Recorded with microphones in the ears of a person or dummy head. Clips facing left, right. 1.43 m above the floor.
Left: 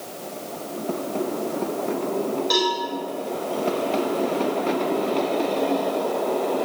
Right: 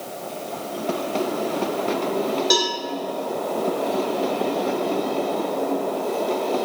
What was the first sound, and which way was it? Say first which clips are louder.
A cowbell: even; 40° right (ahead or behind).